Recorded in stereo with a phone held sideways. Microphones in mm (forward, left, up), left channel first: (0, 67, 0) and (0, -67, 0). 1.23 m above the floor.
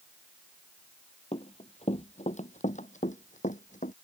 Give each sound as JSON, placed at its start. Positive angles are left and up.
{"t": 1.3, "sound": "running footsteps", "side_deg": 50}